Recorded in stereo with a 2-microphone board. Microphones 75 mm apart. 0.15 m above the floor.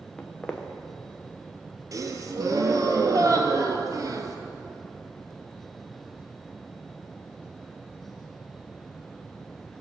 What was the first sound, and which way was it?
Footsteps, 10° left (ahead or behind).